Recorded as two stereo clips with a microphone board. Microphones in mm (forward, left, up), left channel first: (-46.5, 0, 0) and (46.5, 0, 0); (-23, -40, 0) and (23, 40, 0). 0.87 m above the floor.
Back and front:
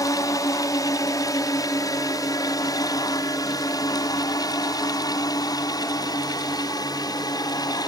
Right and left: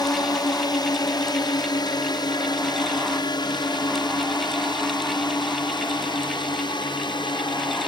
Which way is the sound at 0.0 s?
145° right.